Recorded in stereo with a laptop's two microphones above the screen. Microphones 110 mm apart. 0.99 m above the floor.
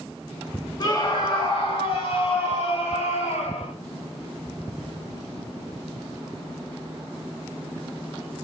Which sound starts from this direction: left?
A scream, at 0.8 s.